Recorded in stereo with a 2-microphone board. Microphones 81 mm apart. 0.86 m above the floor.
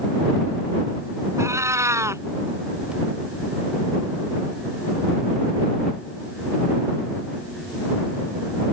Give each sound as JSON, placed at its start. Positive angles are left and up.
{"t": 1.4, "sound": "a cat meowing", "side_deg": -35}